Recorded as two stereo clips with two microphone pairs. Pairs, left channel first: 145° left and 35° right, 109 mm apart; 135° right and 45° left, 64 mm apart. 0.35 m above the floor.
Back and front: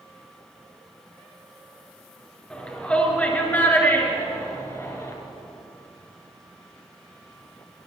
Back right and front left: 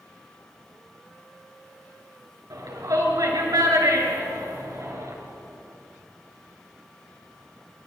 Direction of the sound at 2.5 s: 65° left.